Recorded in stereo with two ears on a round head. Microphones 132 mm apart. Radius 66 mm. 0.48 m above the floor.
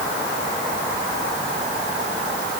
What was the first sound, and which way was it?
Only background noise.